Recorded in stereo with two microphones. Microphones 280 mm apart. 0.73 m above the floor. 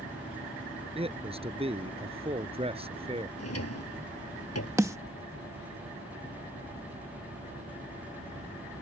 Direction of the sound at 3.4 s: 60° left (ahead or behind).